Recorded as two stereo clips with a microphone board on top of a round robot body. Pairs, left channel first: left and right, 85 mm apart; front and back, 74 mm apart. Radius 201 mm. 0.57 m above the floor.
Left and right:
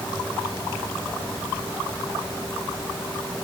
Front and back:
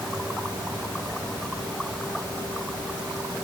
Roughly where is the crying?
No crying in this recording.